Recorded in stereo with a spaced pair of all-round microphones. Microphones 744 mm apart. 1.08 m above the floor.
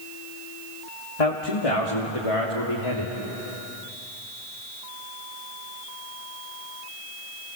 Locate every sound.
1.2 s a man speaking: 55° left (ahead or behind), 2.5 m; by 3.1 s 40° left (ahead or behind), 3 m